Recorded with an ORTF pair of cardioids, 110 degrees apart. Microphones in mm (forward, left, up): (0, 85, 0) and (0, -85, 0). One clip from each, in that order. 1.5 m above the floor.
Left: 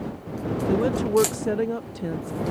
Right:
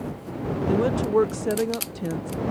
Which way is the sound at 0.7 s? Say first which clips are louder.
Even; straight ahead.